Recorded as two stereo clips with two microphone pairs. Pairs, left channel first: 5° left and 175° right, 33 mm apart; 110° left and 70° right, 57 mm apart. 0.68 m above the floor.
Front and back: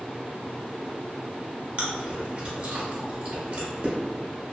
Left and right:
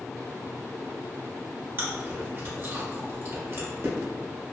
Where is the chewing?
125° right, 0.8 m.